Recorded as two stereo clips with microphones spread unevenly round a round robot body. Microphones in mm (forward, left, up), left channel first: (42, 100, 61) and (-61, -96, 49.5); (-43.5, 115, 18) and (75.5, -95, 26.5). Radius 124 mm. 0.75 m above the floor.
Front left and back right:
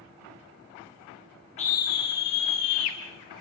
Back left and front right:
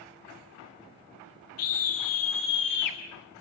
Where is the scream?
120° left, 1.5 m; by 3.0 s 75° left, 2 m.